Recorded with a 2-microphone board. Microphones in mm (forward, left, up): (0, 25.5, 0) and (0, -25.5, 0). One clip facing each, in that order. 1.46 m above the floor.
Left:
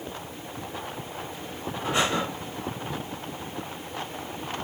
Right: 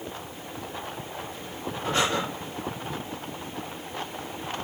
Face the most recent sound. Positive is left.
turn(degrees=10)  # may be behind; listen again after turning